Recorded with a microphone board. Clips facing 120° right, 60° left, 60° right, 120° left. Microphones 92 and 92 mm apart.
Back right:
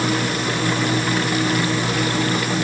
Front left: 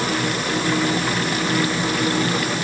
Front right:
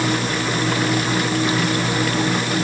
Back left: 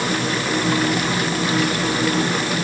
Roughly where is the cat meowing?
I don't hear a cat meowing.